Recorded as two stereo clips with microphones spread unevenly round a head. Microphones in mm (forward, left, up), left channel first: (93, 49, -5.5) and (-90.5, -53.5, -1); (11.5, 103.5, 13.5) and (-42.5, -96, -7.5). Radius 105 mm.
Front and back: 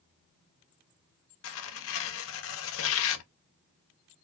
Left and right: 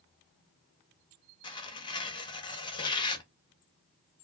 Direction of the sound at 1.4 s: 10° left.